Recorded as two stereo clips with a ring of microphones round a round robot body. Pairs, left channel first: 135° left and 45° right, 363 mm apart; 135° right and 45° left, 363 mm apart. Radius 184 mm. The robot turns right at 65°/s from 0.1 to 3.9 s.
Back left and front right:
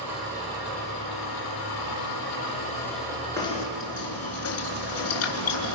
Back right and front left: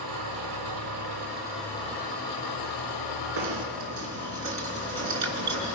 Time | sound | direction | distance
0.0 | an engine running | 40° left | 10 m
3.4 | knocking | 50° left | 3.5 m